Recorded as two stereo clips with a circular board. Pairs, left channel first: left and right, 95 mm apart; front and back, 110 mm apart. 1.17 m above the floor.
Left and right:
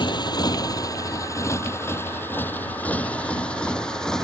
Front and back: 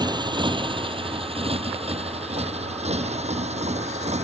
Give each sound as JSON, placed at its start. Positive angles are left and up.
{"t": 0.0, "sound": "a motorcycle", "azimuth_deg": 130}